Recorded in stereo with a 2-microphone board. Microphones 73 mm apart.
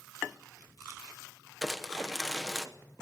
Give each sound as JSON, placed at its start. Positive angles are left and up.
{"t": 1.6, "sound": "crumpling", "side_deg": 0, "distance_m": 1.2}